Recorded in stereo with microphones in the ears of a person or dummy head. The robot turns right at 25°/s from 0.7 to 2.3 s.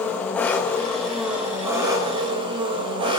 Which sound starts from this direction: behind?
An engine running, at 0.0 s.